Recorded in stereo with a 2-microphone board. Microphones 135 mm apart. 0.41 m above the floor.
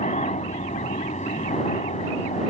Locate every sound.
0.0 s a helicopter: 60° left (ahead or behind)